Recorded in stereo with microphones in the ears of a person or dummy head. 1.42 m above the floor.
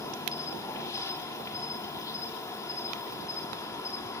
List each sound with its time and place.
0.0 s an insect: 20° left (ahead or behind), 1.7 m